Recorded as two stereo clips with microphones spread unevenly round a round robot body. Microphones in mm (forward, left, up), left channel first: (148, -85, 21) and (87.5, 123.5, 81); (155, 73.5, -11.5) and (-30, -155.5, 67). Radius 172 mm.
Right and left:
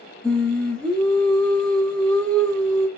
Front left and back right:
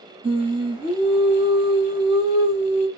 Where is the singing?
40° right, 1.0 m.